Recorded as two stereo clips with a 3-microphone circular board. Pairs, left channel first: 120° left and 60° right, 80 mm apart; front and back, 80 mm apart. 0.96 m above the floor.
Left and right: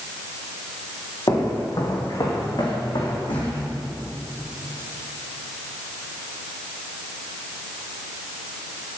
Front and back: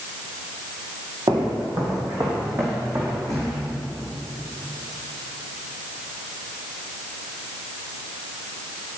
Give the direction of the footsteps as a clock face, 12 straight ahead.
7 o'clock.